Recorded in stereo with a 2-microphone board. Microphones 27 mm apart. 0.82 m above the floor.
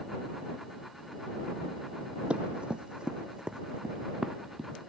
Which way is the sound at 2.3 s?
40° right (ahead or behind).